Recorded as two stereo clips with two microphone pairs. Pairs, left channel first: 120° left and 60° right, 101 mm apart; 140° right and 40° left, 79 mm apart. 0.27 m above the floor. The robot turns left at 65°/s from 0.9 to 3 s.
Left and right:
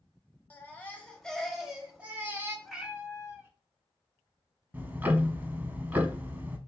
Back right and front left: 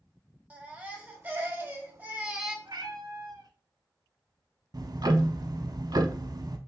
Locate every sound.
0.5 s a baby crying: 75° left, 0.9 m; by 2.5 s 35° right, 0.9 m
2.6 s a cat meowing: 30° left, 0.7 m; by 3.5 s 10° left, 0.7 m
4.7 s ticking: 15° left, 0.5 m